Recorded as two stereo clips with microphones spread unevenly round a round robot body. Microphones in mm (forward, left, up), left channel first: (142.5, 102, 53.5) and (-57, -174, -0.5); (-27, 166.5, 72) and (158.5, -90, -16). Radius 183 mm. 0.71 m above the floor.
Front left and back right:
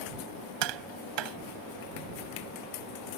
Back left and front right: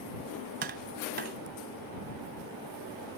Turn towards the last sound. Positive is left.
turn(degrees=-125)